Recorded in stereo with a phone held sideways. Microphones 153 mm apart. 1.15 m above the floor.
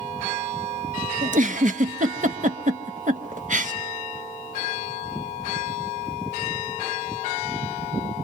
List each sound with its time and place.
1.2 s a giggle: 55° right (ahead or behind), 1.0 m